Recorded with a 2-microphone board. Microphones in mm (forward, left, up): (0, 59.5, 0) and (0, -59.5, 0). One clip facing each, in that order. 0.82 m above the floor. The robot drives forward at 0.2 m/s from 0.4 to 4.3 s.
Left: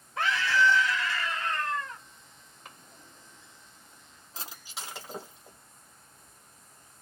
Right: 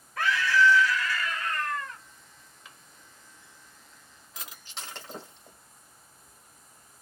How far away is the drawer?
About 0.7 m.